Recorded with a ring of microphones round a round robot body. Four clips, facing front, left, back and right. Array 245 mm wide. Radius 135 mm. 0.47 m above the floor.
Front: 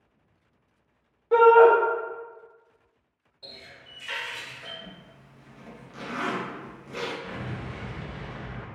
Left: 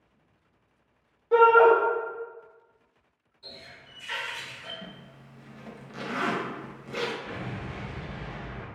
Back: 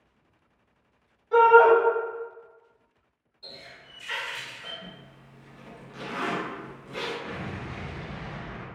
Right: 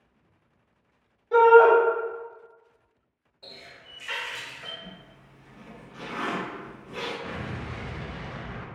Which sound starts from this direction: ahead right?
A running tap, at 3.4 s.